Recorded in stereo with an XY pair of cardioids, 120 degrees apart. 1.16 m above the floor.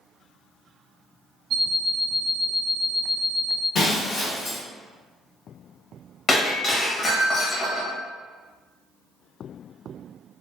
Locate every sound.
1.5 s an alarm clock: 70° right, 0.9 m
3.8 s breaking glass: 60° left, 1.3 m
6.3 s breaking glass: 35° left, 0.9 m